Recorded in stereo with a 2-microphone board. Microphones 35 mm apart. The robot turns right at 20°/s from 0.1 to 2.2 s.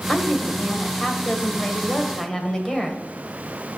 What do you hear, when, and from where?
0.1 s a woman speaking: 25° left (ahead or behind), 1.5 m; by 3.0 s 15° left (ahead or behind), 1.5 m